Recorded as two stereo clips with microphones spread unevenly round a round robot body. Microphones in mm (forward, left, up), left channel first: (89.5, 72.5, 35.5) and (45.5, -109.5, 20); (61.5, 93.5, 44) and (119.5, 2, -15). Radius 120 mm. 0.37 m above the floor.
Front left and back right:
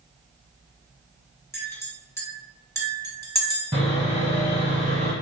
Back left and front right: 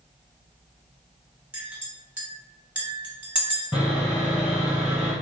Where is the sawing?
170° right, 0.7 m.